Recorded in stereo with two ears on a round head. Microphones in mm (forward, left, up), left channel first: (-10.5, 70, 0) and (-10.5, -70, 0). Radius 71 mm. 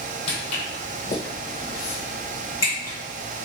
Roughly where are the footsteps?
Left.